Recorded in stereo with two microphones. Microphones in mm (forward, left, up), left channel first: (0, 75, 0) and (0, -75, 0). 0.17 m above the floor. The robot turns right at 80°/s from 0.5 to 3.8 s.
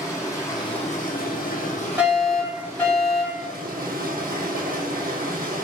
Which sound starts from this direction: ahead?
Running water, at 0.0 s.